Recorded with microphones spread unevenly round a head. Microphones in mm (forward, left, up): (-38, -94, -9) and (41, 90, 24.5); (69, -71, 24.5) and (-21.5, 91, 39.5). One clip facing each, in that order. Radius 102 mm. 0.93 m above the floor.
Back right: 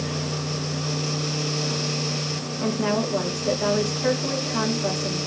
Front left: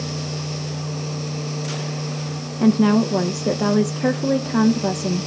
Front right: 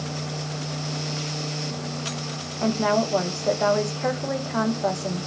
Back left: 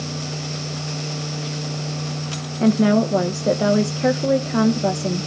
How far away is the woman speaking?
About 0.9 m.